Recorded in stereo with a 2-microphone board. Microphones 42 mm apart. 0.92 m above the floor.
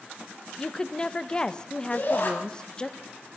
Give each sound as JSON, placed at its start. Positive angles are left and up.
{"t": 0.6, "sound": "a woman speaking", "side_deg": 20, "distance_m": 0.7}
{"t": 1.9, "sound": "a shout", "side_deg": 45, "distance_m": 5.5}